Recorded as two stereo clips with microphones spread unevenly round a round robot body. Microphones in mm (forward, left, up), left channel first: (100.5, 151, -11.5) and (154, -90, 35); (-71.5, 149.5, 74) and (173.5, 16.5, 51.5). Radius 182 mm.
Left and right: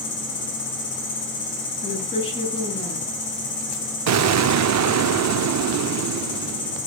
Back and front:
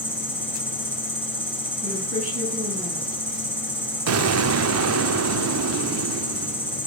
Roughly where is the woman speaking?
Ahead left.